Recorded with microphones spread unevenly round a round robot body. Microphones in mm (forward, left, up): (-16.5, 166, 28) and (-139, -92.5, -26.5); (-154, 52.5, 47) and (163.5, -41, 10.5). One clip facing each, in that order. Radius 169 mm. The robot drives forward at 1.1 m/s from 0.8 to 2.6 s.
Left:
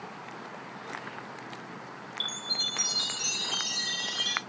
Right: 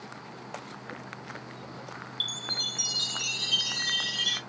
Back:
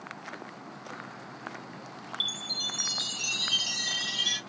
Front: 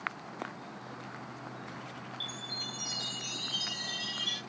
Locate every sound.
2.2 s a chime: 175° left, 0.7 m